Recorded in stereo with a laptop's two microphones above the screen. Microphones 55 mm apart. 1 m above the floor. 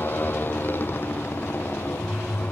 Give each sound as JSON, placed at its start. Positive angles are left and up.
{"t": 0.0, "sound": "a motorcycle", "side_deg": 40}